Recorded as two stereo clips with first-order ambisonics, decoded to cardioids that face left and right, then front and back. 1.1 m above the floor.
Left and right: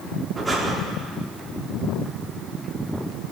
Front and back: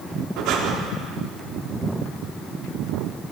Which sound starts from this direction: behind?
Breathing, at 0.4 s.